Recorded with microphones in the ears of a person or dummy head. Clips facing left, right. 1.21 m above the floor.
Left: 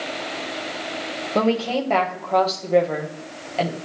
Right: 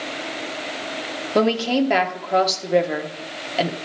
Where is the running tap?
I don't hear a running tap.